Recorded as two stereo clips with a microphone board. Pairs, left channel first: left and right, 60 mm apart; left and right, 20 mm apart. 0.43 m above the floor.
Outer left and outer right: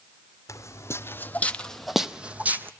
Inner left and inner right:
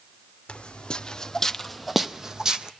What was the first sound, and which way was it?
Footsteps, 60° left (ahead or behind).